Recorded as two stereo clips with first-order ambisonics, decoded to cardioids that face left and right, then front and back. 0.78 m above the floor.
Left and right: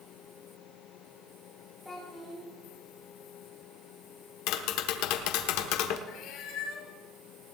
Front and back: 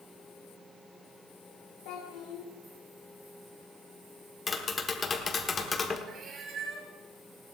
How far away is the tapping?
About 1.2 m.